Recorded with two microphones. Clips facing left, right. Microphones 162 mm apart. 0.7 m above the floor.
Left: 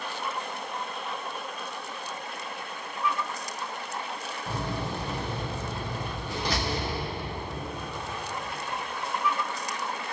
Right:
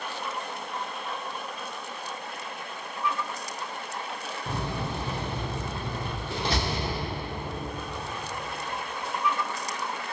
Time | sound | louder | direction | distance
4.5 | a door slam | even | 25° right (ahead or behind) | 0.7 m